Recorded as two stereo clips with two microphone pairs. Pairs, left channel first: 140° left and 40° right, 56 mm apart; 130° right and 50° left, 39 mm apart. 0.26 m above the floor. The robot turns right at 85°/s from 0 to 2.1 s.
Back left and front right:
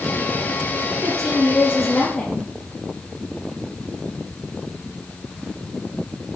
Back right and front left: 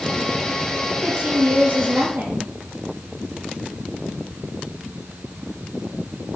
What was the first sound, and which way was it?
A woman speaking, 25° right.